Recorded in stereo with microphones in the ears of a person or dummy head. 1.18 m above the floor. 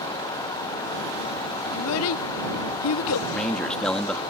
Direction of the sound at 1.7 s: 80° left.